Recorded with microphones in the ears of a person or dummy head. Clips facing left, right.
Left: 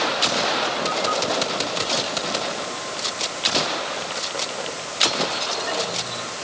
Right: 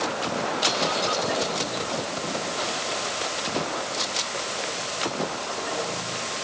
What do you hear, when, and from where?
Only background noise.